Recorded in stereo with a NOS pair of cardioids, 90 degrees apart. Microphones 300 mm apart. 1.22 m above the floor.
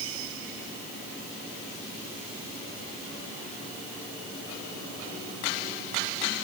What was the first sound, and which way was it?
Only background noise.